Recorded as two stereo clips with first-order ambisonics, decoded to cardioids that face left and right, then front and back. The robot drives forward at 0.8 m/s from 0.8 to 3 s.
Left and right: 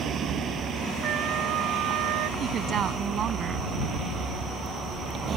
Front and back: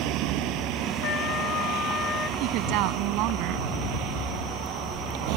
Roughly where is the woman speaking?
Behind right.